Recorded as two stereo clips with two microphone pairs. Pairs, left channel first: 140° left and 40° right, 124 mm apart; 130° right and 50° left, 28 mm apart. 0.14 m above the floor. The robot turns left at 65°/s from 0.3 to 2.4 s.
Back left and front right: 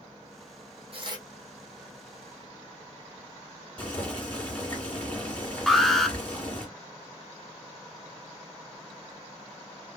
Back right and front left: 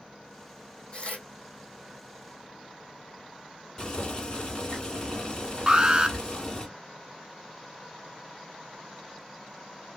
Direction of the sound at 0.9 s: 80° right.